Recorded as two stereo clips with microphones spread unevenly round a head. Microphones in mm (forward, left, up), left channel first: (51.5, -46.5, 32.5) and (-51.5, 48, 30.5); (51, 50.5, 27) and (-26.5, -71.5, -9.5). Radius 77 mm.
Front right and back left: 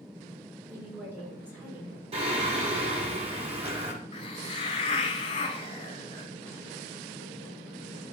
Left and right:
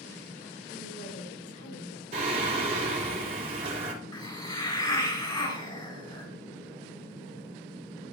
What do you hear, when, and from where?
0.7 s a woman speaking: 60° left, 6.5 m
2.1 s singing: 170° right, 3 m
4.1 s a hiss: 10° left, 2 m